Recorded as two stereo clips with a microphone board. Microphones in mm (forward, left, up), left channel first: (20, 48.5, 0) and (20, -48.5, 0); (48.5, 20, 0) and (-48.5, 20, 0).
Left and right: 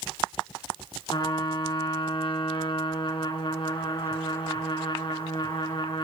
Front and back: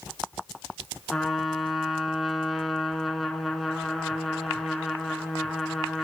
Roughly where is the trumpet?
Left.